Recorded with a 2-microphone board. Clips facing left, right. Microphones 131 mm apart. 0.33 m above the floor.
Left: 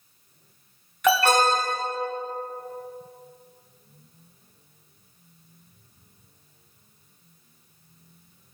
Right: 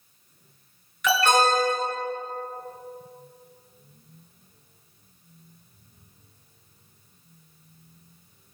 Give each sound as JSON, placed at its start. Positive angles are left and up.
{"t": 1.0, "sound": "an alarm", "side_deg": 50, "distance_m": 2.0}